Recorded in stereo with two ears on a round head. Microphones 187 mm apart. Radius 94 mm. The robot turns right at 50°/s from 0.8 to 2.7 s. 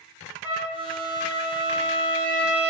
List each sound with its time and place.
0.4 s a trumpet: 170° right, 1.5 m; by 2.7 s 75° right, 1.5 m